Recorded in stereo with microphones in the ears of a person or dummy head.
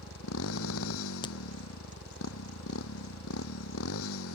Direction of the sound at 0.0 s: 80° left.